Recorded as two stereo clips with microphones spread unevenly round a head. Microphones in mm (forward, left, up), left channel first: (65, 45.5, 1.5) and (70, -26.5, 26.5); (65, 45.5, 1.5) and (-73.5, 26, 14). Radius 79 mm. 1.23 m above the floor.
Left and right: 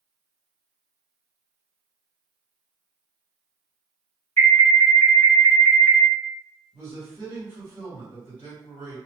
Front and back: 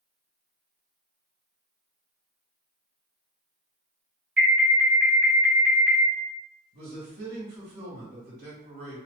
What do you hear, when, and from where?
4.4 s an alarm: 100° left, 1.6 m
6.7 s a man speaking: 175° right, 1.8 m